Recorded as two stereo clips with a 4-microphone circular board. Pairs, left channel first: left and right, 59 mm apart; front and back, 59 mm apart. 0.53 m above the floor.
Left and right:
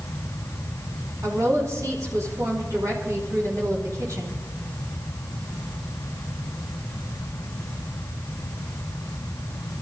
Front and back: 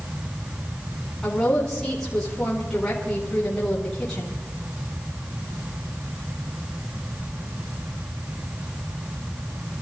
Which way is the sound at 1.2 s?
80° right.